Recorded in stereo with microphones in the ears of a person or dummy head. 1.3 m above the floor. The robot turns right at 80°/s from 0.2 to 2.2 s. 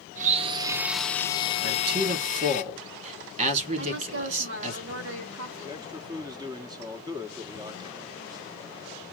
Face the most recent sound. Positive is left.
turn(degrees=-15)  # may be behind; listen again after turning